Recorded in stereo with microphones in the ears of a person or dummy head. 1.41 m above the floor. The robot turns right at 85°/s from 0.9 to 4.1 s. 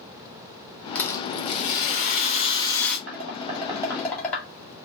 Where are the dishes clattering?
75° right (ahead or behind), 2 m; by 4.5 s 5° left (ahead or behind), 2 m.